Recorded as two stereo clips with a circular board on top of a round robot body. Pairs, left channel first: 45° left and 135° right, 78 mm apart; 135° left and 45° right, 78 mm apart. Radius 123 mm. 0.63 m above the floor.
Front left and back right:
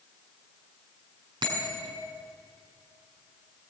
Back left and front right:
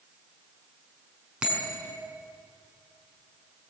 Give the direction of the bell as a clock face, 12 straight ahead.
4 o'clock.